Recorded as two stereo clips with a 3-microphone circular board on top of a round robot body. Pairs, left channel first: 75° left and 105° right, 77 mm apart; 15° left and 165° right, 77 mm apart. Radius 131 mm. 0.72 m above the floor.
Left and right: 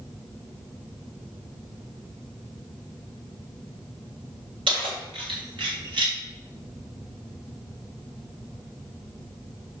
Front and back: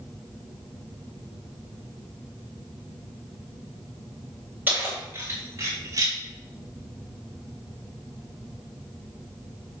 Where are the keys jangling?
95° right, 2.5 m; by 6.2 s 120° right, 3 m.